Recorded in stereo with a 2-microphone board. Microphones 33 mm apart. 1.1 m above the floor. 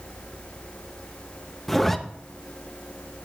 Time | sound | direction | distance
1.7 | a zipper | 5° left (ahead or behind) | 0.6 m